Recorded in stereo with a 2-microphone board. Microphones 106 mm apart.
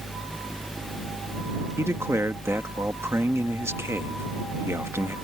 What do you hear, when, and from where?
1.8 s a man speaking: 25° right (ahead or behind)